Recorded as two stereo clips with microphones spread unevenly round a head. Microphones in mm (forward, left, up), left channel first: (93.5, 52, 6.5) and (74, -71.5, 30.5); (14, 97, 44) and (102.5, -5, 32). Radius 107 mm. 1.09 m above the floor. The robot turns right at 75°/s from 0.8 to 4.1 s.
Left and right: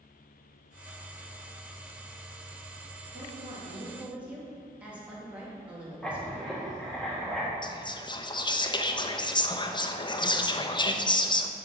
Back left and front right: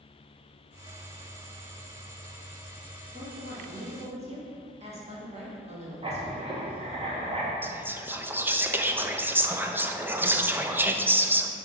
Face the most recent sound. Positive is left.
turn(degrees=25)